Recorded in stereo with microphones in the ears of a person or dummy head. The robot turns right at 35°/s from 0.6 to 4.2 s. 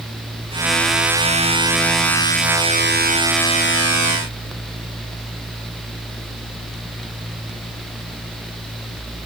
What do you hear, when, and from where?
Only background noise.